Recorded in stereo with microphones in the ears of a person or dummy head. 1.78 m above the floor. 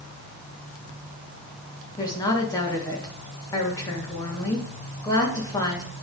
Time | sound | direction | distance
2.0 | a woman speaking | 20° left (ahead or behind) | 1.8 m